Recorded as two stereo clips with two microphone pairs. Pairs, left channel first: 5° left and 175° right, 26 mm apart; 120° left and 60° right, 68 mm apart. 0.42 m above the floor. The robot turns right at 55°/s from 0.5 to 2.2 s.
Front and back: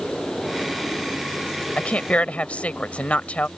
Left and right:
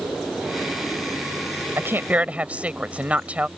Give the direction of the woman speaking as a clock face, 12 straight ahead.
1 o'clock.